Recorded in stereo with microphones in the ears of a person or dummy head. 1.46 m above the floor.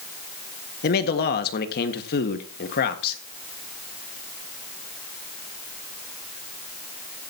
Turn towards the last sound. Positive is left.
turn(degrees=50)  # may be behind; listen again after turning